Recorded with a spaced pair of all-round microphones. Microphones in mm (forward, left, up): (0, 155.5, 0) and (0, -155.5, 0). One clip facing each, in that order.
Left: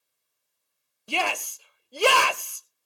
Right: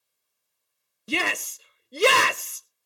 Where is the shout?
25° right (ahead or behind), 0.7 m.